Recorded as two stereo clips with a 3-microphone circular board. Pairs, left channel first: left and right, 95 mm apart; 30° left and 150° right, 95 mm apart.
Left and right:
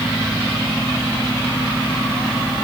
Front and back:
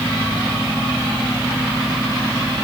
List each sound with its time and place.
Only background noise.